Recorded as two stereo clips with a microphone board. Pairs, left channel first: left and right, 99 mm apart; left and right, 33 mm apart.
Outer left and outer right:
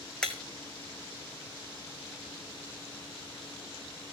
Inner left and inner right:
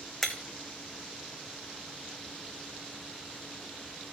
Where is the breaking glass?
10° left (ahead or behind), 1.5 m.